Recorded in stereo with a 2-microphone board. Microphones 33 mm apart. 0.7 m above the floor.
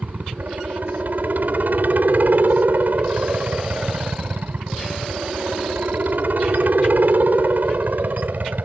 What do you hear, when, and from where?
0.0 s a helicopter: 60° right (ahead or behind); by 8.7 s 65° right (ahead or behind)